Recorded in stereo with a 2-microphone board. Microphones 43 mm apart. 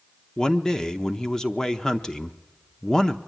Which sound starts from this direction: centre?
A man speaking, at 0.4 s.